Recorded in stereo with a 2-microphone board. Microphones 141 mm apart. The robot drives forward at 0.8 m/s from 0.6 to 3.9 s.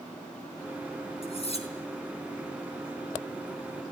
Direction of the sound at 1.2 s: 45° left (ahead or behind).